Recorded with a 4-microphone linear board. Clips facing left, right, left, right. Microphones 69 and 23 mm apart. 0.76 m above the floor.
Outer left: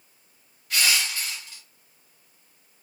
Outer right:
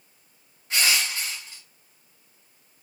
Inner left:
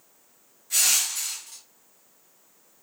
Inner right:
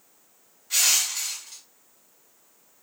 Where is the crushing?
30° right (ahead or behind), 1.2 m.